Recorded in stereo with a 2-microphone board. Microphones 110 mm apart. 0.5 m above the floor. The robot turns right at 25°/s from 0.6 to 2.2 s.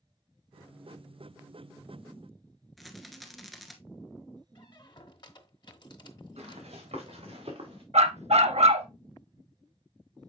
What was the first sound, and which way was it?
A rattle, centre (ahead or behind).